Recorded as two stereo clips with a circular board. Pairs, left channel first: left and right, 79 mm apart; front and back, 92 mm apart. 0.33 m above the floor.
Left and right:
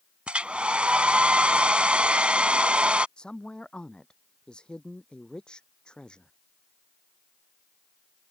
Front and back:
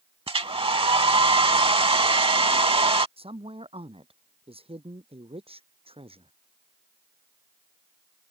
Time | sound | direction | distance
0.3 | a hair dryer | 165° right | ?
3.2 | a woman speaking | 170° left | ?